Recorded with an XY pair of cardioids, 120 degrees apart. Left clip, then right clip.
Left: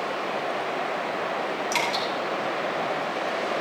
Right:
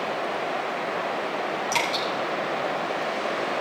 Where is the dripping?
5° left, 6.5 m.